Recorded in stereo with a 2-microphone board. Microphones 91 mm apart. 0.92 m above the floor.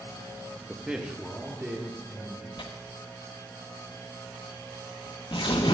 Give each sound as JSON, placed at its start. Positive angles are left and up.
{"t": 0.7, "sound": "a man speaking", "side_deg": -5, "distance_m": 0.8}
{"t": 2.6, "sound": "tearing paper", "side_deg": 65, "distance_m": 0.9}